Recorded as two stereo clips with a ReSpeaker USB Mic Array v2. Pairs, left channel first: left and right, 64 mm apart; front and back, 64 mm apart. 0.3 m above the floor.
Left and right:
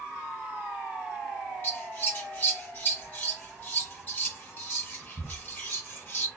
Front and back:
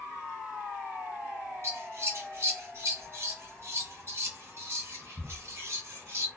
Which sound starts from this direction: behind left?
Scissors, at 1.6 s.